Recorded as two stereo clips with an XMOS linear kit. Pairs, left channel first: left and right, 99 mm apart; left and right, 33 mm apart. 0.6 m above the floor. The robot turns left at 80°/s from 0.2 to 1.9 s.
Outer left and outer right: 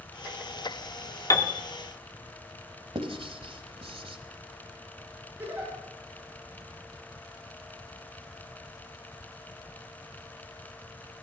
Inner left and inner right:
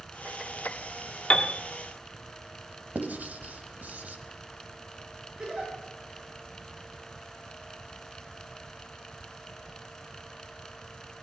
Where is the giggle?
20° right (ahead or behind), 7.5 m.